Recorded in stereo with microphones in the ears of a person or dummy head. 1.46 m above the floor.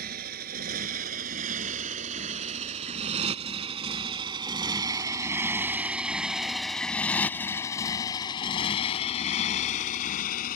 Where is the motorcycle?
55° right (ahead or behind); by 10.6 s 45° left (ahead or behind).